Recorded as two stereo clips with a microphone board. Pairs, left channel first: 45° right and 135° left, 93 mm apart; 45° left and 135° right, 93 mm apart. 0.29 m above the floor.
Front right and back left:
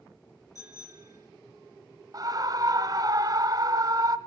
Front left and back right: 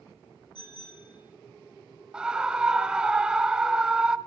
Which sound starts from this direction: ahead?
A bicycle bell, at 0.6 s.